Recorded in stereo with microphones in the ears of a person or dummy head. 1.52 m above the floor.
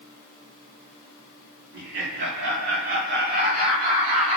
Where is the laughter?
80° right, 4.5 m; by 4.4 s 50° right (ahead or behind), 4 m.